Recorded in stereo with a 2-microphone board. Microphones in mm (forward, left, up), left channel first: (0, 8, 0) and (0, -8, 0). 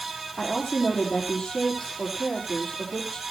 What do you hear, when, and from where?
0.4 s a woman speaking: 50° left (ahead or behind), 6 m